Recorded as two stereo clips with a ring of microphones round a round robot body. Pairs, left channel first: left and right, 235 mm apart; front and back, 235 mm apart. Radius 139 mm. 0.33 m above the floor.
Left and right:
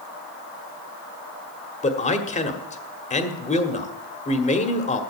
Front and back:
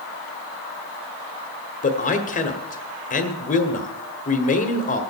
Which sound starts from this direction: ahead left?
A man speaking, at 1.8 s.